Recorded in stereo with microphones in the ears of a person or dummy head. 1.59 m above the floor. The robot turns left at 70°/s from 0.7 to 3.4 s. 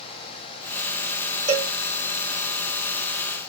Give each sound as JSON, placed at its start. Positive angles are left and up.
{"t": 1.5, "sound": "a cowbell", "side_deg": -30, "distance_m": 4.0}